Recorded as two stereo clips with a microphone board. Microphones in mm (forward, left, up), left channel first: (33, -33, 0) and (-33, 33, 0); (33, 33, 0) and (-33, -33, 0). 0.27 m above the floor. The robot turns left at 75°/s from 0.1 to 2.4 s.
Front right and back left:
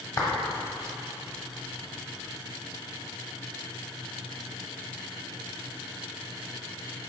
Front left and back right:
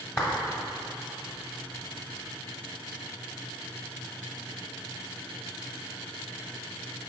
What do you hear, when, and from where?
0.2 s a clap: straight ahead, 1.3 m; by 0.3 s 10° right, 1.3 m